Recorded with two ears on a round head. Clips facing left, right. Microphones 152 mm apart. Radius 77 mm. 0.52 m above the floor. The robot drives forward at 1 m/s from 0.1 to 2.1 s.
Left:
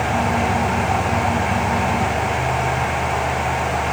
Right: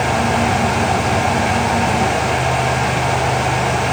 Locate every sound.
Only background noise.